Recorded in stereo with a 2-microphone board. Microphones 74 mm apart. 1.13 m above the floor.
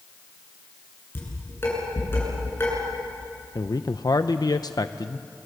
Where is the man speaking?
60° left (ahead or behind), 0.7 m.